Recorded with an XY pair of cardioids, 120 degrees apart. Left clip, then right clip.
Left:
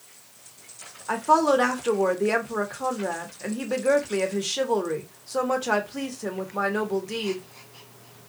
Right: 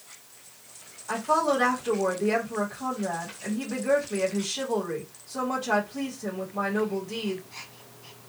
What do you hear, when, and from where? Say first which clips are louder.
1.1 s a woman speaking: left 4 dB; 50° left, 1.1 m